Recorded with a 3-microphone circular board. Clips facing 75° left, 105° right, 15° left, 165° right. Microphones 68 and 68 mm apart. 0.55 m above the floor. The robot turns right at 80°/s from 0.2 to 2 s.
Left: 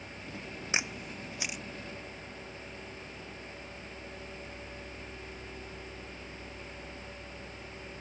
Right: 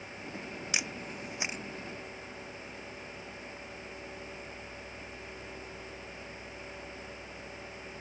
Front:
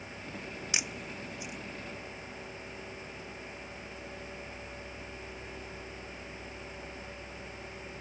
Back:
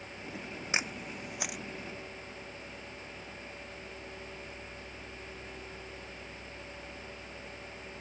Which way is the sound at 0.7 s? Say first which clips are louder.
Left 3 dB, back 4 dB; 135° left.